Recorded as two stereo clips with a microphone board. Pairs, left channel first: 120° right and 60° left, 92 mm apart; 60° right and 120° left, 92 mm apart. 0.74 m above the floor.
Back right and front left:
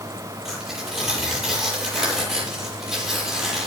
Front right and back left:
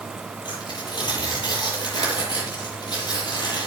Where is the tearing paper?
25° right, 9.5 m.